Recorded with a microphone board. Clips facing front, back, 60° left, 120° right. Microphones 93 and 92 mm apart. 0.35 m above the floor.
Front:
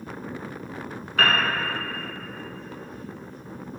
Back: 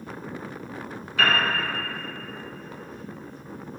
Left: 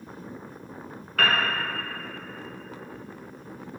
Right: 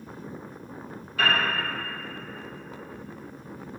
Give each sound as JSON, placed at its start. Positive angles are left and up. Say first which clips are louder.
{"t": 1.2, "sound": "a piano", "louder": "front 1 dB, left 1 dB", "azimuth_deg": 35, "distance_m": 1.2}